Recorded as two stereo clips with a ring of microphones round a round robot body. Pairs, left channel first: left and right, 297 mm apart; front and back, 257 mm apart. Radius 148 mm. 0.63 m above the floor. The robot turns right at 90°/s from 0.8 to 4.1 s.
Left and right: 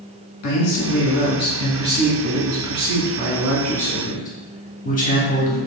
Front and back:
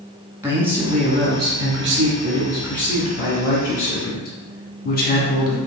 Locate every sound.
0.4 s a man speaking: 100° left, 1.2 m; by 5.6 s 40° left, 1.2 m